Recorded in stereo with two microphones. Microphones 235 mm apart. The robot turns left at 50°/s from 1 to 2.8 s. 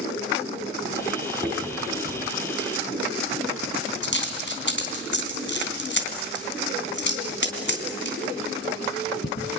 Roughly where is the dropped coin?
Centre.